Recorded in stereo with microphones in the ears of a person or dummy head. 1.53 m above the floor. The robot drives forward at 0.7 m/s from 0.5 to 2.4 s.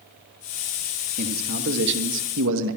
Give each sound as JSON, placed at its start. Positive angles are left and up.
{"t": 1.2, "sound": "a man speaking", "side_deg": -50, "distance_m": 2.5}